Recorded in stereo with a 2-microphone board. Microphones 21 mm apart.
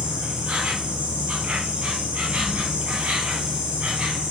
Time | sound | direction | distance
0.0 | an insect | 70° right (ahead or behind) | 1.3 m